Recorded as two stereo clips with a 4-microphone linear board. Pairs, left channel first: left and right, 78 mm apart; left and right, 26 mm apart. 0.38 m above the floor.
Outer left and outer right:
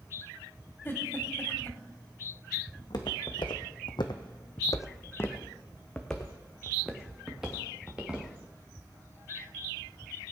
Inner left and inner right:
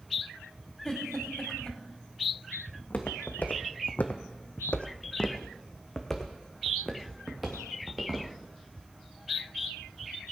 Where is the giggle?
30° left (ahead or behind), 1.8 m.